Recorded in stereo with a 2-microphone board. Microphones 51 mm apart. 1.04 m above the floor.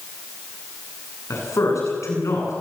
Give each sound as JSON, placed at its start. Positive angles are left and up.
{"t": 1.3, "sound": "a man speaking", "side_deg": 85, "distance_m": 9.0}